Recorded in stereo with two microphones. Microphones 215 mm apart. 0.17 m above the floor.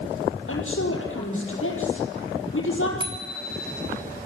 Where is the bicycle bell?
20° right (ahead or behind), 2.5 m.